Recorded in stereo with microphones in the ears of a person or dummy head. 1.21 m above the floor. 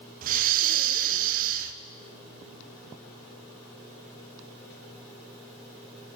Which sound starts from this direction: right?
Breathing, at 0.2 s.